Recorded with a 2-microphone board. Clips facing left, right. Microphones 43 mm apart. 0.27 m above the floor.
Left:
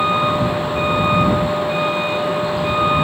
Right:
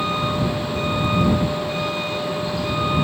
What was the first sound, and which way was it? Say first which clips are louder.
A vehicle: left 5 dB; 25° left (ahead or behind).